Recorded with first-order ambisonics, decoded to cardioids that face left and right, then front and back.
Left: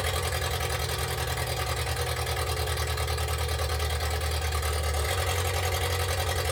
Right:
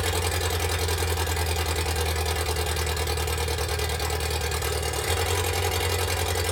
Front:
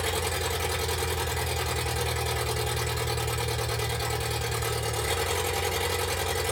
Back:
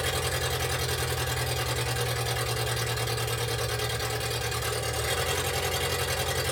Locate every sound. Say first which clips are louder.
0.0 s an engine running: right 3 dB, even; 100° right, 2.5 m